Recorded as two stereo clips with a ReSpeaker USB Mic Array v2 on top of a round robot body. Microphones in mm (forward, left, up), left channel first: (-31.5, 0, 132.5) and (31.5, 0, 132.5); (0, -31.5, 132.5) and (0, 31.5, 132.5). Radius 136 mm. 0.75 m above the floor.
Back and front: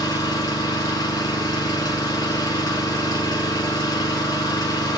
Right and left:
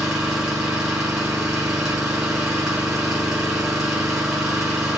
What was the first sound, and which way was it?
An engine running, 170° left.